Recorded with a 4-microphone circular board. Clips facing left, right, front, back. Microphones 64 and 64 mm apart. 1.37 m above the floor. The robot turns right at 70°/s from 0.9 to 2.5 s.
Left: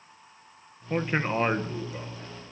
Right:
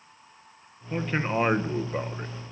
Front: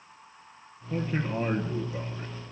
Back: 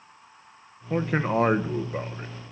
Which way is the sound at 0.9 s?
150° left.